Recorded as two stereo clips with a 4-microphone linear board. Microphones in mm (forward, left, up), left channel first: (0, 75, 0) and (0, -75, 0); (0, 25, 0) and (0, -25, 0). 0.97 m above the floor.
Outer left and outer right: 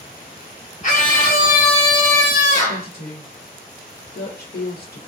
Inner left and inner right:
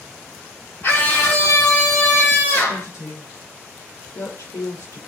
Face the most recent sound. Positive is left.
turn(degrees=75)  # may be behind; listen again after turning